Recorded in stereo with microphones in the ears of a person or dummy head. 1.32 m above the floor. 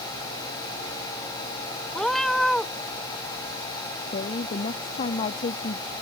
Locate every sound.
1.9 s a cat meowing: 5° left (ahead or behind)
4.1 s a woman speaking: 35° left (ahead or behind)